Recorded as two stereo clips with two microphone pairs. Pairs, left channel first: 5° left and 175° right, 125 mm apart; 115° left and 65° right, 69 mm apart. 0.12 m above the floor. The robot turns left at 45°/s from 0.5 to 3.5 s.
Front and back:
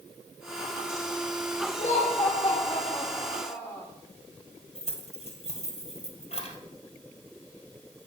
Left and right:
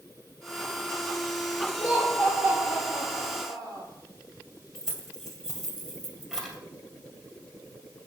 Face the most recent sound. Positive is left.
turn(degrees=15)